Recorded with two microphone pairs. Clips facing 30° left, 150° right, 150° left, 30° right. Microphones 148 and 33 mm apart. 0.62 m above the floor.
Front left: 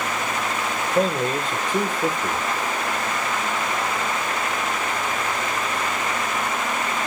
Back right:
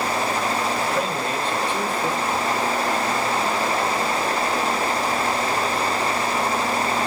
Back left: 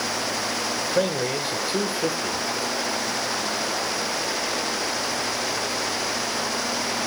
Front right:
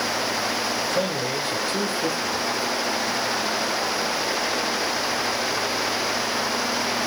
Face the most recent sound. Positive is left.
turn(degrees=80)